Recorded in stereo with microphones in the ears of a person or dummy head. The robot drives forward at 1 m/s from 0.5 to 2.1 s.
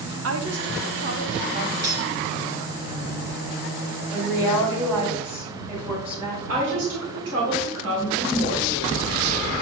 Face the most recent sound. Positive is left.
turn(degrees=-75)  # may be behind; listen again after turning